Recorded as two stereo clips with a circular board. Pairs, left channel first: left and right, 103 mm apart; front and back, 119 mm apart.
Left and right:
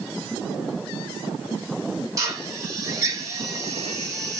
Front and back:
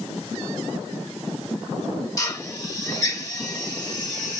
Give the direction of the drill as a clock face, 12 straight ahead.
2 o'clock.